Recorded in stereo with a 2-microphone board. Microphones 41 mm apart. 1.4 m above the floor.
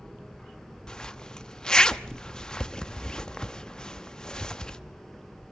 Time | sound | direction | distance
0.9 | a zipper | 15° left (ahead or behind) | 0.8 m